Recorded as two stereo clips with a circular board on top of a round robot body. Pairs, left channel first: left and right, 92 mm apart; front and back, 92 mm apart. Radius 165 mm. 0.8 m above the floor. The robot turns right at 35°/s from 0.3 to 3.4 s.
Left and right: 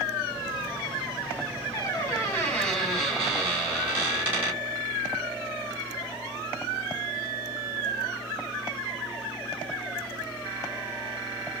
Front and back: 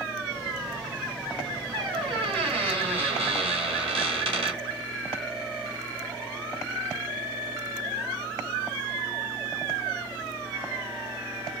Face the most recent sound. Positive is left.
turn(degrees=-160)